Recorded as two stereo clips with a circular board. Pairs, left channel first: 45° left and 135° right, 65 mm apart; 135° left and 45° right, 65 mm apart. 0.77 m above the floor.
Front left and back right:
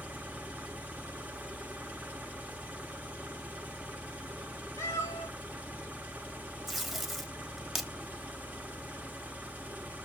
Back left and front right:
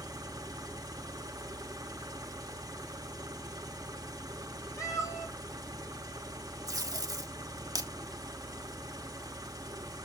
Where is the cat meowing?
90° left, 5 m.